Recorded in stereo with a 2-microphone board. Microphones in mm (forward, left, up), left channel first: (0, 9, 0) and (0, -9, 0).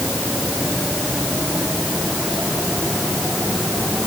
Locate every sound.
Only background noise.